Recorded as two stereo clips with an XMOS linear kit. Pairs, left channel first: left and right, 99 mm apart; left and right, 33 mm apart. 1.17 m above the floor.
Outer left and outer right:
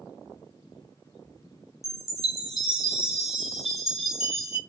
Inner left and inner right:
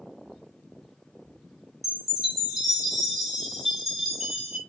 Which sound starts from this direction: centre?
A chime, at 1.8 s.